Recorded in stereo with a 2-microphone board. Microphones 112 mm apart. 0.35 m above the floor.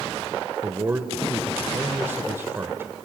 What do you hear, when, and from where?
0.6 s a man speaking: 20° right (ahead or behind), 1.1 m